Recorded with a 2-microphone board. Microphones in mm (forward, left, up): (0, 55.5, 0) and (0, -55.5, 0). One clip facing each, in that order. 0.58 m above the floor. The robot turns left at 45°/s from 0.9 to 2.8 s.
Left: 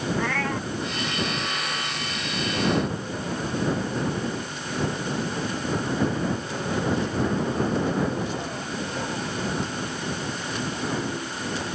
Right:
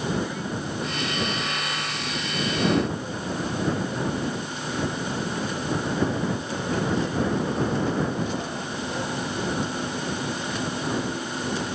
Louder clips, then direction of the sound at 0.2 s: Left 2 dB; 80° left.